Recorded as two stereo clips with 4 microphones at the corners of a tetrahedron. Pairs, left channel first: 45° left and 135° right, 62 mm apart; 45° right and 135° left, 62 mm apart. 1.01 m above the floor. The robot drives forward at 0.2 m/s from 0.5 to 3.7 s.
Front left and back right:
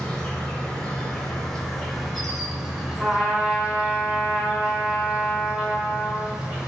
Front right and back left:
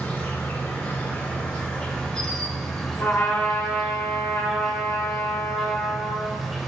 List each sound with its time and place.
0.0 s an insect: 15° right, 0.9 m; by 6.7 s 145° right, 0.7 m
3.0 s a trumpet: 55° right, 0.9 m; by 6.4 s 65° right, 0.8 m